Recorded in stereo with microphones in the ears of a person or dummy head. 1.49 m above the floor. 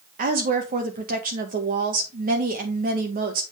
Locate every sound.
0.2 s a woman speaking: 45° right (ahead or behind), 2 m